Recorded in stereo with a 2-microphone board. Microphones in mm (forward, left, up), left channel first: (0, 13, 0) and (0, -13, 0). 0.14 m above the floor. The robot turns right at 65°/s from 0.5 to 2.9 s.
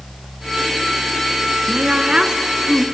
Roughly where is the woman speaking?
Right.